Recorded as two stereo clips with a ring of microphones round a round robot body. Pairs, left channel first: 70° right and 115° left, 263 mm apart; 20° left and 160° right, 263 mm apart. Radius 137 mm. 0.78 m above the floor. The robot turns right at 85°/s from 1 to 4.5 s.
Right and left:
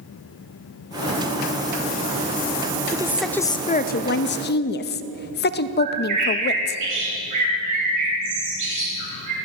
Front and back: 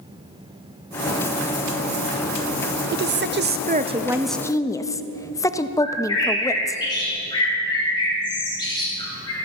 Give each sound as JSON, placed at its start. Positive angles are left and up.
{"t": 2.9, "sound": "a woman speaking", "azimuth_deg": 175, "distance_m": 0.5}
{"t": 5.8, "sound": "a bird", "azimuth_deg": 95, "distance_m": 3.5}